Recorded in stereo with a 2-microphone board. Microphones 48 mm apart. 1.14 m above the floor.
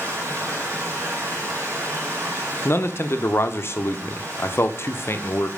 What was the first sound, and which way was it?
Running water, 70° right (ahead or behind).